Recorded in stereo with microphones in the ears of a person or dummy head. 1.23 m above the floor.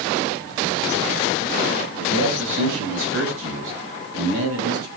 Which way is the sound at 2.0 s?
80° right.